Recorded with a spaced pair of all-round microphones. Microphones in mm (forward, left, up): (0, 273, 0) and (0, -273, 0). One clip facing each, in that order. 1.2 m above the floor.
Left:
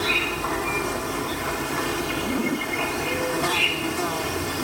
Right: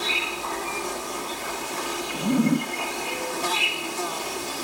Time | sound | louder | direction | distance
0.0 | an insect | left 5 dB | 75° left (ahead or behind) | ?
2.1 | a zipper | right 7 dB | 45° right (ahead or behind) | ?